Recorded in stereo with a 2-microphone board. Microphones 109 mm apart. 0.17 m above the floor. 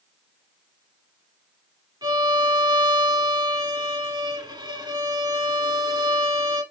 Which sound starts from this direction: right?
A violin, at 2.0 s.